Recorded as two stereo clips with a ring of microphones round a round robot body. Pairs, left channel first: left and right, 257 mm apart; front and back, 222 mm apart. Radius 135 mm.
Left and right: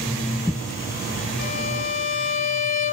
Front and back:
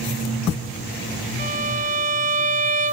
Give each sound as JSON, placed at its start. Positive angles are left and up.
{"t": 1.4, "sound": "a violin", "azimuth_deg": 125, "distance_m": 0.7}